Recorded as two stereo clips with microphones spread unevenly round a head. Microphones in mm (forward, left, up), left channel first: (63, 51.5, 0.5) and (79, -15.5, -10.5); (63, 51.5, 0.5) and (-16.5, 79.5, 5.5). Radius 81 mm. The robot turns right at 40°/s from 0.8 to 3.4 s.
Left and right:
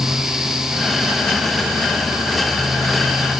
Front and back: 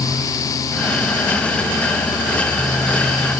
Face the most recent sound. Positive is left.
No sound to turn to.